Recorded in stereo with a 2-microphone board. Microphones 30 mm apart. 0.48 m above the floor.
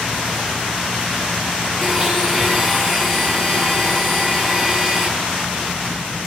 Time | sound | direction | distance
1.8 | a blender | centre (ahead or behind) | 6 m